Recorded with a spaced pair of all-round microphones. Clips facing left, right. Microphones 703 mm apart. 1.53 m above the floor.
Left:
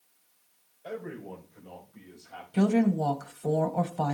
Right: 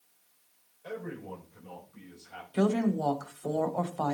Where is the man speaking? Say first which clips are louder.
Left 1 dB; 40° right (ahead or behind), 6 m; by 2.4 s 35° right (ahead or behind), 8.5 m.